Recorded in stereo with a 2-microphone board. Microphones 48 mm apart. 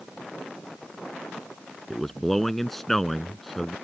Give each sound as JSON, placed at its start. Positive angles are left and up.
{"t": 1.9, "sound": "a man speaking", "side_deg": 5}